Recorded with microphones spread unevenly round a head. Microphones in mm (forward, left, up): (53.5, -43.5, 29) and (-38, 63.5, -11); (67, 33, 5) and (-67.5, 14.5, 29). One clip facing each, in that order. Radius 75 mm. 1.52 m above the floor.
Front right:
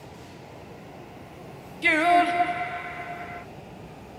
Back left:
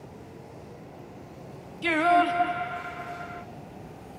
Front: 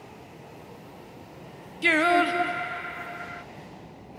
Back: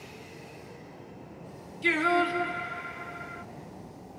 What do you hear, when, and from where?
1.8 s singing: 15° left, 1.0 m